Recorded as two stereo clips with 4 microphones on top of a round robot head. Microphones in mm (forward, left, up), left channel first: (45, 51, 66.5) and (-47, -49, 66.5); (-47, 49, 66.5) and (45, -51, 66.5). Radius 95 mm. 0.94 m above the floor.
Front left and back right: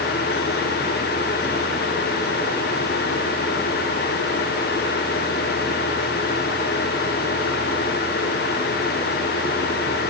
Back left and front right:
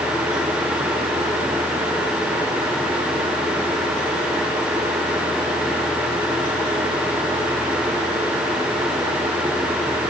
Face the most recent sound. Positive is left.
No sound to turn to.